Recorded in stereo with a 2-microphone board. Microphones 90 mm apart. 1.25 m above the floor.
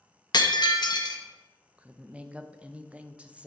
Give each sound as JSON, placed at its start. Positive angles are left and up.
{"t": 0.3, "sound": "breaking glass", "side_deg": 50, "distance_m": 0.7}
{"t": 1.8, "sound": "a woman speaking", "side_deg": -15, "distance_m": 0.5}